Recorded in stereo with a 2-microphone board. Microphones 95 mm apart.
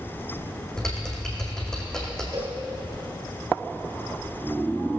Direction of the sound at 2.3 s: 35° right (ahead or behind).